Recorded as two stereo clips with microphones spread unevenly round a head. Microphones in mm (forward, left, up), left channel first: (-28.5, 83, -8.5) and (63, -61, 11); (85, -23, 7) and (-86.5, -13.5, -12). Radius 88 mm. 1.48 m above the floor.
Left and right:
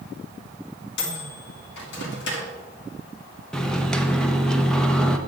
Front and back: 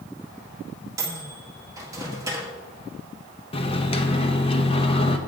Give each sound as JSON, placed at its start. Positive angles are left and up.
{"t": 1.0, "sound": "a microwave", "azimuth_deg": 105, "distance_m": 1.8}
{"t": 3.5, "sound": "a microwave", "azimuth_deg": 30, "distance_m": 0.8}